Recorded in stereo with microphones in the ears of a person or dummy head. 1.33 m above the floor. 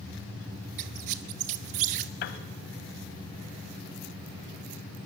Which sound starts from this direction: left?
A piano, at 2.2 s.